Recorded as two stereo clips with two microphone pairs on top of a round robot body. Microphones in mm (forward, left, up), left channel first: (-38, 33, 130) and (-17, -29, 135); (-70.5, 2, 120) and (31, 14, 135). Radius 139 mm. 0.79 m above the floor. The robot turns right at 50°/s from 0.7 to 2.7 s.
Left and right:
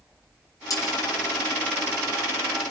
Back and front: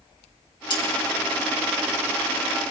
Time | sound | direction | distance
0.7 | cutlery clinking | 145° left | 4 m